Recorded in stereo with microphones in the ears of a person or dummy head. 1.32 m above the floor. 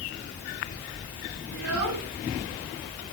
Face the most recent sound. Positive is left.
turn(degrees=-75)  # may be behind; listen again after turning